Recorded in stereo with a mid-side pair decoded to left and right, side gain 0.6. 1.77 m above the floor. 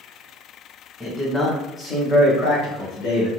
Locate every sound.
1.0 s a man speaking: 10° left, 1.3 m; by 3.3 s 65° left, 1.1 m